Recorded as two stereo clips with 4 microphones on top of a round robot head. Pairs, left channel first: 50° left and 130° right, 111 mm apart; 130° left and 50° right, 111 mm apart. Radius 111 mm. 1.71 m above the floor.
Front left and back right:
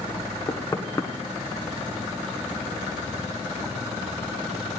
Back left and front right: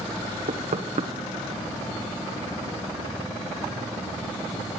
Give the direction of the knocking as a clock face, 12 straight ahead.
1 o'clock.